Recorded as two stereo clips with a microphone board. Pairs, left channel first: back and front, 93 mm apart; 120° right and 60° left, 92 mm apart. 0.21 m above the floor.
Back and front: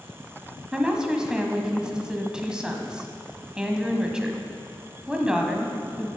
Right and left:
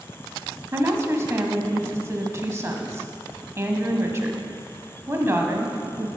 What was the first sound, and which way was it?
A woman speaking, 70° left.